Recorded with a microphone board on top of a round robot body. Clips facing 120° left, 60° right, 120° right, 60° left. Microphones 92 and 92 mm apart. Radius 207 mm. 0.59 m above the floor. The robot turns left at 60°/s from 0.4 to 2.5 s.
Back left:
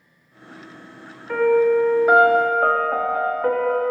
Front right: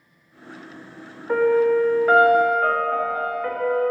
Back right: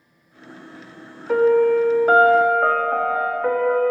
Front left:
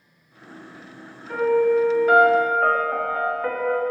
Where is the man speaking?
No man speaking in this recording.